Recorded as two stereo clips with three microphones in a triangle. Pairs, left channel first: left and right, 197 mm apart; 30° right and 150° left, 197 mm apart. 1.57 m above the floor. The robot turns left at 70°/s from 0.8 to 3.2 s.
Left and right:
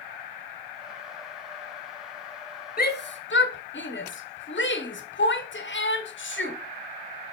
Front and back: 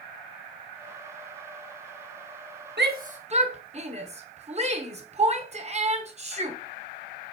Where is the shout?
125° left, 1.2 m; by 6.6 s 95° left, 1.2 m.